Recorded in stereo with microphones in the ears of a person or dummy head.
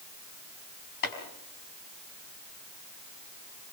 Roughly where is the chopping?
Left.